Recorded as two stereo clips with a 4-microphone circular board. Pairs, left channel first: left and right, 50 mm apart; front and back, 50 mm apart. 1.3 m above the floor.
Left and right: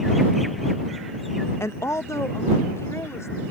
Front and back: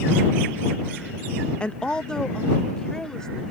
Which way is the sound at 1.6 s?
70° left.